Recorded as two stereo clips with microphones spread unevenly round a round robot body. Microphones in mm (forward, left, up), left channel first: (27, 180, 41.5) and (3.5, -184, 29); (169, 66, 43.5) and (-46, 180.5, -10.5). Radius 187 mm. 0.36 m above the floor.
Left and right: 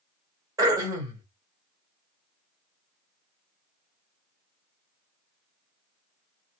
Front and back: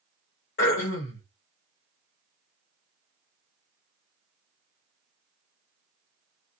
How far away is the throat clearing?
About 1.6 m.